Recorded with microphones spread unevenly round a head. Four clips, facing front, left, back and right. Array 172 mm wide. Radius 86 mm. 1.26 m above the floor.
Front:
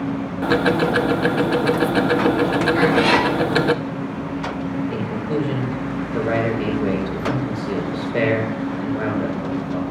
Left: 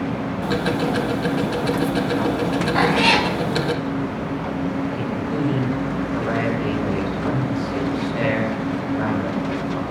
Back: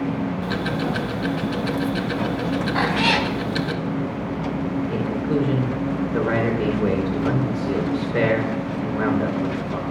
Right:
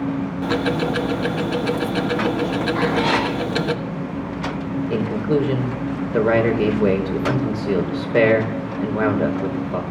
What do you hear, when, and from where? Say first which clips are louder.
0.4 s ticking: right 1 dB, front 7 dB; straight ahead, 1.6 m
2.8 s a cat meowing: left 2 dB, front 5 dB; 115° left, 4.5 m
4.9 s a man speaking: right 4 dB, back 1 dB; 100° right, 4.5 m